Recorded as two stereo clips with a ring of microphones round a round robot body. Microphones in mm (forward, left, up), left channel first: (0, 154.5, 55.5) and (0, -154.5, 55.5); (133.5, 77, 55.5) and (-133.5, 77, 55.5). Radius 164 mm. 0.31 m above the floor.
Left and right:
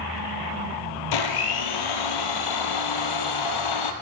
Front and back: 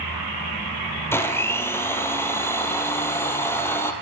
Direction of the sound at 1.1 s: 80° left.